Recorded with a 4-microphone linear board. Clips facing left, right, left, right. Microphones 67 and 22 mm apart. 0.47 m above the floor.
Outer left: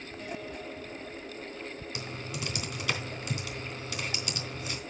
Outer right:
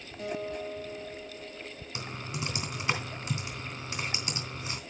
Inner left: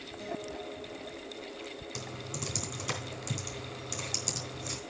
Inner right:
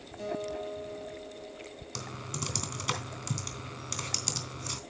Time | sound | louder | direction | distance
0.2 | a guitar | outer right 6 dB, inner right 5 dB | 60° right (ahead or behind) | 5 m
1.9 | typing on a keyboard | outer right 4 dB, inner right 4 dB | 30° right (ahead or behind) | 3 m